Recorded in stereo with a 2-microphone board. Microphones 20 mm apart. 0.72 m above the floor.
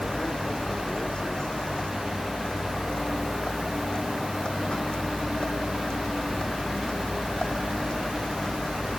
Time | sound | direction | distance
0.0 | a vehicle | 50° left (ahead or behind) | ?